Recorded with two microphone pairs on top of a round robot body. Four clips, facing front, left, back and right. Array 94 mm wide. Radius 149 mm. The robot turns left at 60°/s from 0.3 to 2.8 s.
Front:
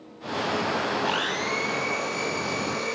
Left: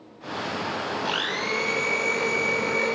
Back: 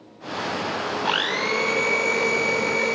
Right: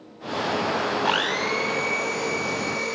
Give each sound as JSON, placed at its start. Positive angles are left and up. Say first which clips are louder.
{"t": 1.1, "sound": "a blender", "louder": "right 4 dB, back 3 dB", "azimuth_deg": -125, "distance_m": 0.5}